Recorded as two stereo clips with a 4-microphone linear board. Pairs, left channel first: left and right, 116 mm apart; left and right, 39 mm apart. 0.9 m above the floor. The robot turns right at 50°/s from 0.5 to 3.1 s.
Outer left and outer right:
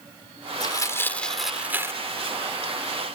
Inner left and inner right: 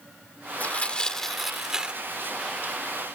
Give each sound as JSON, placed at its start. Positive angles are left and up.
{"t": 0.6, "sound": "tearing paper", "side_deg": 40}